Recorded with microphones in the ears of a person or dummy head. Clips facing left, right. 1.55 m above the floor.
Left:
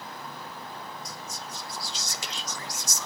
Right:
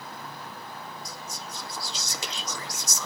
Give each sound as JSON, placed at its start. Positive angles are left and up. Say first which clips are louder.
{"t": 1.1, "sound": "whispering", "louder": "even", "side_deg": -70, "distance_m": 0.7}